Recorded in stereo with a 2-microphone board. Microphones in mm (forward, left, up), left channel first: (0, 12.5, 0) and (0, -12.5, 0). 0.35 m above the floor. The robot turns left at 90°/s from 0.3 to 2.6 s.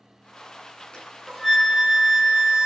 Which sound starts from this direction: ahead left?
A flute, at 0.9 s.